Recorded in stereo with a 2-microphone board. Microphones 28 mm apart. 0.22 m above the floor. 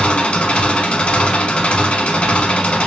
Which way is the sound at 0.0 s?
55° left (ahead or behind).